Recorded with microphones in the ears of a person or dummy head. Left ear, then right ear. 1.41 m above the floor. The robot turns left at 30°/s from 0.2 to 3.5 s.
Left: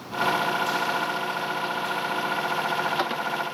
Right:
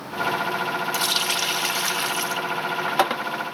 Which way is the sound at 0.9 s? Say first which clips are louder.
Right 4 dB; 85° right.